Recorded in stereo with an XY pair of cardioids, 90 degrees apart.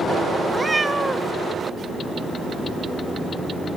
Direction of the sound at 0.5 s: 25° right.